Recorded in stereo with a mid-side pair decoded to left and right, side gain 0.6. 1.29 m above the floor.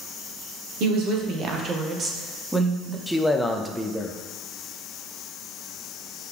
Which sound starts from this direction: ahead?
A man speaking, at 3.1 s.